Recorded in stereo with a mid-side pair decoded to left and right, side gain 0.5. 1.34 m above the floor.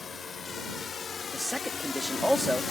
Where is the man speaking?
Straight ahead.